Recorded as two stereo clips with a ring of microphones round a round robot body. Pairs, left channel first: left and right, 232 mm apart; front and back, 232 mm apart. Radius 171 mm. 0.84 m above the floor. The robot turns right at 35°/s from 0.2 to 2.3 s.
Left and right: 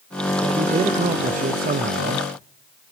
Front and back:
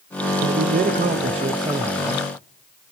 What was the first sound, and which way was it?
A man speaking, 160° right.